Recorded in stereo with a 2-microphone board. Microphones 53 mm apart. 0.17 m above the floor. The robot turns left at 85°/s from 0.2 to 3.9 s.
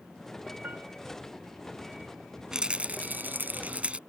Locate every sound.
0.6 s a piano: 40° right (ahead or behind); by 0.8 s 55° right (ahead or behind)
2.5 s a rattle: 20° right; by 4.0 s 135° right